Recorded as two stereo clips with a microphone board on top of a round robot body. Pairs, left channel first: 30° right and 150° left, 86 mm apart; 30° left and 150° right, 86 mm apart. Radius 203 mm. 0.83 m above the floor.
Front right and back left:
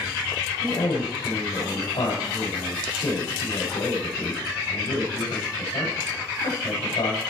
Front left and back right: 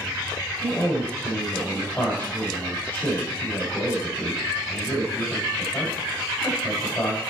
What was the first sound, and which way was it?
A man speaking, 40° right.